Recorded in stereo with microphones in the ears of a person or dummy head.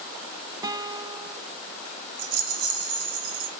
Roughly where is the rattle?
Right.